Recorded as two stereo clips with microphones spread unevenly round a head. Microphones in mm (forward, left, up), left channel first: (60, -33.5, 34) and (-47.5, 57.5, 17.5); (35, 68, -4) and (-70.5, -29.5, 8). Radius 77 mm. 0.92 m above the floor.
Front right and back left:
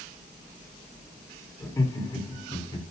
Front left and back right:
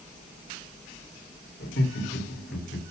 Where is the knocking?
No knocking in this recording.